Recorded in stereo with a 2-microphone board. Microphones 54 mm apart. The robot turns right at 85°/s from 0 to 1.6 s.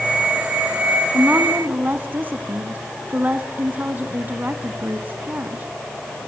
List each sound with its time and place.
1.1 s a woman speaking: 145° right, 1.3 m; by 5.7 s 105° right, 1.3 m